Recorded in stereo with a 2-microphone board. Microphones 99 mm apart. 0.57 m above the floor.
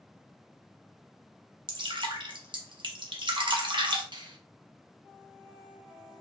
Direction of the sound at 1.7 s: 55° right (ahead or behind).